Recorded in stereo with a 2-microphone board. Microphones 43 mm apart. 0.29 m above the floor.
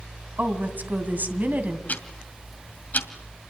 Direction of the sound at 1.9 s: 45° left (ahead or behind).